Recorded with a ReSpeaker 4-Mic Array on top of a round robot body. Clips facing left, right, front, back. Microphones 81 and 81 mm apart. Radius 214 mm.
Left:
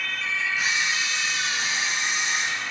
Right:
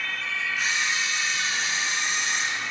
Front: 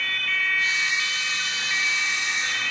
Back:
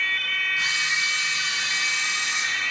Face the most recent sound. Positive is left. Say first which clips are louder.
# right 2 dB, front 1 dB
turn(degrees=180)